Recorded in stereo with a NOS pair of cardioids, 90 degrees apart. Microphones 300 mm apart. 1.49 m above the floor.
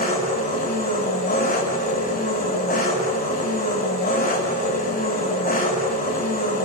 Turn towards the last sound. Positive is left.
turn(degrees=30)